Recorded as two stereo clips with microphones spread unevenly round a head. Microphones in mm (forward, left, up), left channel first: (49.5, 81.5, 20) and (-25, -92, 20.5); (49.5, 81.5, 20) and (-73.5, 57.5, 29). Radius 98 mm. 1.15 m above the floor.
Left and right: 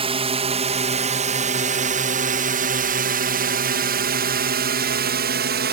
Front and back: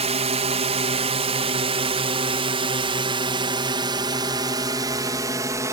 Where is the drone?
165° right; by 5.7 s 100° right.